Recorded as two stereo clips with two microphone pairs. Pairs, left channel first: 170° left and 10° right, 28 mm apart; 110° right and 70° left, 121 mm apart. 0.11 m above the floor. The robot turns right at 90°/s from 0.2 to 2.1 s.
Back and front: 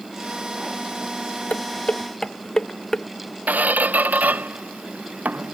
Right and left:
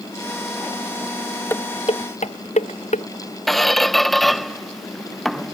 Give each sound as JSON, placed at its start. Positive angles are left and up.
{"t": 1.5, "sound": "dishes clattering", "azimuth_deg": 180}
{"t": 3.5, "sound": "a squeak", "azimuth_deg": -20}